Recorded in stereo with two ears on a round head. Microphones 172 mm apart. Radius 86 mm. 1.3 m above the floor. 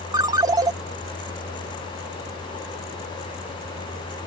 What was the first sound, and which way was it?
A ringtone, 20° right (ahead or behind).